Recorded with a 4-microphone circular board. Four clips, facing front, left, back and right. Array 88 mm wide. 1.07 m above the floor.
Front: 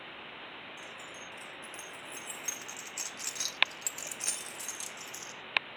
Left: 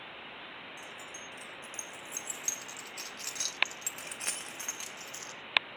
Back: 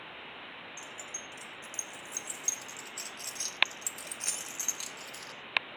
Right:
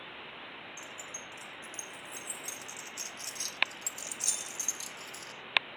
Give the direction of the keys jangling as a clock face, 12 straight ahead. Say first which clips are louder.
Even, even; 12 o'clock.